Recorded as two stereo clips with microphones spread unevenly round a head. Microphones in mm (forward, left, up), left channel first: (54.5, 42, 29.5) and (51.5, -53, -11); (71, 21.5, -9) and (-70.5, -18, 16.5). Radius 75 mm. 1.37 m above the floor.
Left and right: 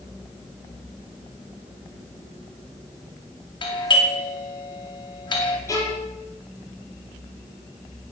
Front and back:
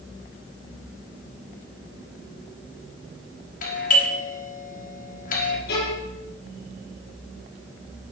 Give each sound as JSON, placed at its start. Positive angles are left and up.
{"t": 3.6, "sound": "a doorbell", "azimuth_deg": 45, "distance_m": 5.0}
{"t": 5.7, "sound": "a violin", "azimuth_deg": 40, "distance_m": 6.5}